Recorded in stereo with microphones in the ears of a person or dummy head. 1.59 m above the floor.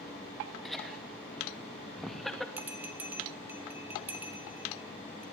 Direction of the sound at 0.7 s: 5° left (ahead or behind).